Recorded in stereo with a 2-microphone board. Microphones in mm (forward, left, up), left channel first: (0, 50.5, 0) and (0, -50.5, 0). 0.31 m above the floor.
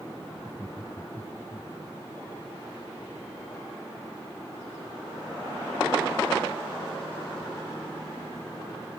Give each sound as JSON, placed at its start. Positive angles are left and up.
{"t": 0.4, "sound": "laughter", "side_deg": 15}